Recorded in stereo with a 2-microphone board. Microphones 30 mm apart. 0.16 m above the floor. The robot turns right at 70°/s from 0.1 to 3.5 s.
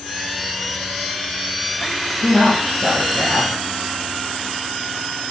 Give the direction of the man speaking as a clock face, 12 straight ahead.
7 o'clock.